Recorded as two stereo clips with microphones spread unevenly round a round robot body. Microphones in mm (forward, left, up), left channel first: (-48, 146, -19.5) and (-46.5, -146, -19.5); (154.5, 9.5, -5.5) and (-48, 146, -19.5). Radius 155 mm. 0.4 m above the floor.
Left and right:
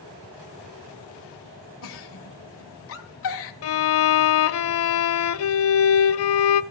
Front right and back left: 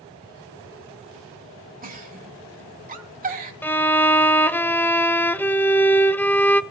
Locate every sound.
1.8 s a giggle: 110° left, 2.0 m
3.6 s a violin: 50° left, 0.7 m